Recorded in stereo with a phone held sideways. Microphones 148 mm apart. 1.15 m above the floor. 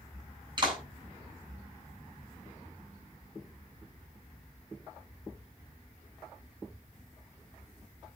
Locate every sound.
0.6 s a clap: 30° right (ahead or behind), 8 m